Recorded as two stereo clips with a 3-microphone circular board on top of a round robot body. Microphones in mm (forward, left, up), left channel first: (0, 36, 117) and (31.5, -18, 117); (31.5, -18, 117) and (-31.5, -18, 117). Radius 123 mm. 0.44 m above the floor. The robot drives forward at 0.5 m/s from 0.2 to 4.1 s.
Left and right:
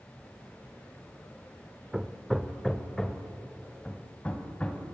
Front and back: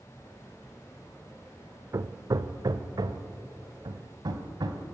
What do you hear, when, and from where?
1.9 s hammering: 140° right, 0.6 m; by 4.9 s 165° right, 1.6 m